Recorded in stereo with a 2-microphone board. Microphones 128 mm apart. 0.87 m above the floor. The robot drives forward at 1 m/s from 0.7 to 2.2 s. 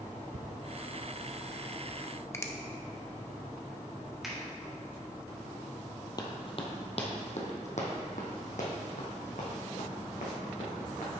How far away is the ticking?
About 0.5 m.